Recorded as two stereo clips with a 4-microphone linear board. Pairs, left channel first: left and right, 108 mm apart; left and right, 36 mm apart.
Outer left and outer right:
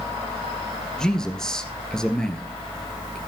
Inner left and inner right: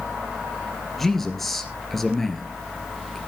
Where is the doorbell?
I don't hear a doorbell.